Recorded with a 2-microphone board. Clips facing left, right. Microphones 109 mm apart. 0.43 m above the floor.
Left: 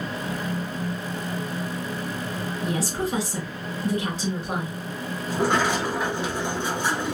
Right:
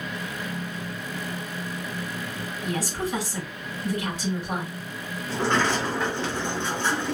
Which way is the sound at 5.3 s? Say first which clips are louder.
Left 1 dB; 15° left (ahead or behind).